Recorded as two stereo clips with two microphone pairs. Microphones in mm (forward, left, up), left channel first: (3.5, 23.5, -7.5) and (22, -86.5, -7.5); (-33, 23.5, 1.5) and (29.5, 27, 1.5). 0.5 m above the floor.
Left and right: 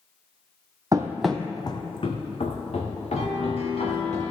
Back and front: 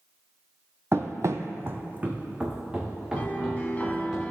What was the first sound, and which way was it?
Running footsteps, 35° right.